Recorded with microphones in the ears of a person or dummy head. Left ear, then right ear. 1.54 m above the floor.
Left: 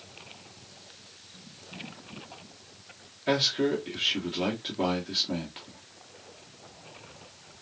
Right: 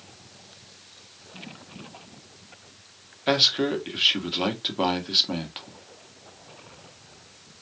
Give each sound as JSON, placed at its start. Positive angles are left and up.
{"t": 3.3, "sound": "a man speaking", "side_deg": -40, "distance_m": 1.5}